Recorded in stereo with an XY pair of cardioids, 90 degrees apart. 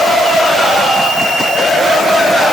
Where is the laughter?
No laughter in this recording.